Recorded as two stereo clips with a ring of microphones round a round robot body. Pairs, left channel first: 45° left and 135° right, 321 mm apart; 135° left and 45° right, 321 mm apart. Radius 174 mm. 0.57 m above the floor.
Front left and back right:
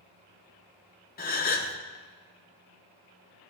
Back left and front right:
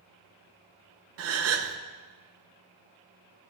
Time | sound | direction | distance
1.2 | a gasp | 10° right | 0.9 m